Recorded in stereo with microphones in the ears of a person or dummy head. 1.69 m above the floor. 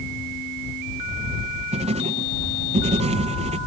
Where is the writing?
35° right (ahead or behind).